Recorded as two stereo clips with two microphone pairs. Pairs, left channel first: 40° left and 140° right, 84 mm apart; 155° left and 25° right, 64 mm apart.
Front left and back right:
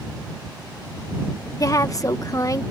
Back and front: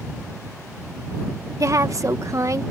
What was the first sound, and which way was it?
A woman speaking, straight ahead.